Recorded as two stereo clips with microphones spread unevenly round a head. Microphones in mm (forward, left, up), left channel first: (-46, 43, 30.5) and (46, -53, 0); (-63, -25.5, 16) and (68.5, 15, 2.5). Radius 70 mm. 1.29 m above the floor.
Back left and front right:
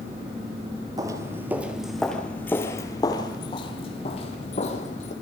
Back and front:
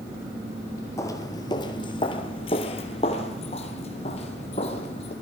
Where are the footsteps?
115° right, 1.5 m; by 5.1 s 155° left, 3 m.